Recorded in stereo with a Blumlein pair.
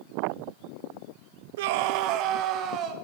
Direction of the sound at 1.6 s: 55° right.